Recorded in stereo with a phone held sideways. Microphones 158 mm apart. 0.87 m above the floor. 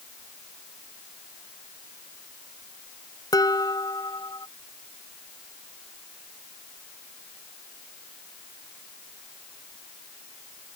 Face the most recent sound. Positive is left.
turn(degrees=25)  # may be behind; listen again after turning